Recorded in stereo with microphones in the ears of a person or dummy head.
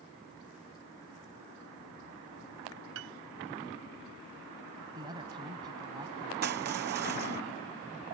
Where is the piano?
85° right.